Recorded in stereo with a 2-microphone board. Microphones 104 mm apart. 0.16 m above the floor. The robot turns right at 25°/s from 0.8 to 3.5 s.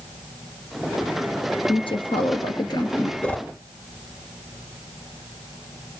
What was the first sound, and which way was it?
A woman speaking, 105° left.